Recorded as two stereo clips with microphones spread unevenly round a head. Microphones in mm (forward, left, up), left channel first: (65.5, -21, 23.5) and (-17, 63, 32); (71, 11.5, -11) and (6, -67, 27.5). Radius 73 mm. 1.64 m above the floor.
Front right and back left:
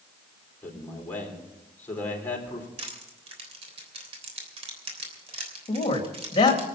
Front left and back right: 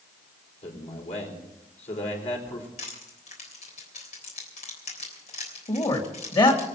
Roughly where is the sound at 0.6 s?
Ahead left.